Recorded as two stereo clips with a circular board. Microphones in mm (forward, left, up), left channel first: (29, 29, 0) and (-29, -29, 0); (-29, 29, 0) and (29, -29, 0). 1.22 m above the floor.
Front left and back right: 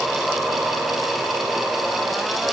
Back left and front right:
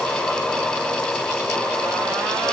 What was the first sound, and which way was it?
Only background noise.